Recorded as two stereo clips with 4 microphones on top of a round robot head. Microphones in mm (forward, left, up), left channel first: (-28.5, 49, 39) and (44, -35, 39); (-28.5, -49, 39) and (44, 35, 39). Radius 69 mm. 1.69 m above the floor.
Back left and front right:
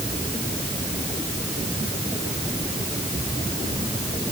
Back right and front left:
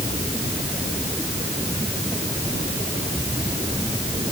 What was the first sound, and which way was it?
Only background noise.